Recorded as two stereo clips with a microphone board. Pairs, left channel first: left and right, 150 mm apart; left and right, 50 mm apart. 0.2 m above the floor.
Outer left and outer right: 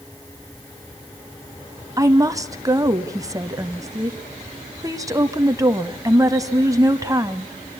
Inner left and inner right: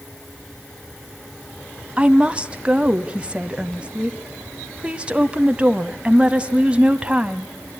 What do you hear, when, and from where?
2.0 s a woman speaking: 25° right (ahead or behind), 1.0 m